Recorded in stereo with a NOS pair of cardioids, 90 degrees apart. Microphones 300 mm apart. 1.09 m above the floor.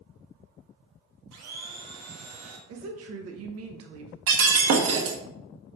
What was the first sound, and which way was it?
A blender, 60° right.